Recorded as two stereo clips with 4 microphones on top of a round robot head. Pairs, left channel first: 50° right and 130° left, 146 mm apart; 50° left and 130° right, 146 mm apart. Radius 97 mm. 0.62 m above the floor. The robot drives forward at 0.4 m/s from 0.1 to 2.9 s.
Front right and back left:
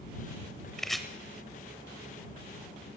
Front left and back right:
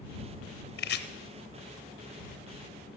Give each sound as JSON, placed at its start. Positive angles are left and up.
{"t": 0.8, "sound": "chopping", "azimuth_deg": 40, "distance_m": 0.9}